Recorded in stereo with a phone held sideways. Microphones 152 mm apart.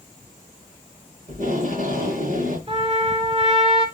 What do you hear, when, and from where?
1.3 s tape being pulled: 70° right (ahead or behind), 7 m
2.7 s a trumpet: 45° right (ahead or behind), 3 m